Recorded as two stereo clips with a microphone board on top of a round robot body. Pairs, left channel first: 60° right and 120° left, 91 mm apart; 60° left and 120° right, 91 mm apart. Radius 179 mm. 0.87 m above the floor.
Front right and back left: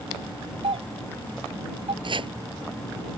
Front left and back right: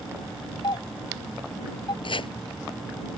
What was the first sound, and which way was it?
A doorbell, 100° left.